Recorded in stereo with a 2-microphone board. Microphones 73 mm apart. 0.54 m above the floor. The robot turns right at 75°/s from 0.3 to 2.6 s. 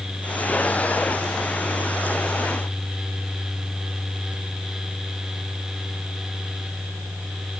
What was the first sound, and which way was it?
Only background noise.